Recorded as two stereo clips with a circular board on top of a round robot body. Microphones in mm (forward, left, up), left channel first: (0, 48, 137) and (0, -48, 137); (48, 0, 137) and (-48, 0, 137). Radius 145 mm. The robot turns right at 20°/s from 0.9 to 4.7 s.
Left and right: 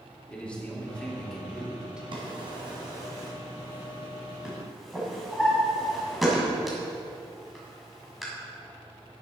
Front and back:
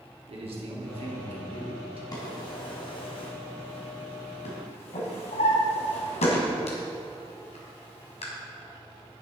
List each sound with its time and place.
0.3 s a man speaking: 170° left, 3 m; by 2.0 s 170° right, 3 m
2.1 s a drawer: 50° right, 1.9 m; by 8.2 s straight ahead, 1.9 m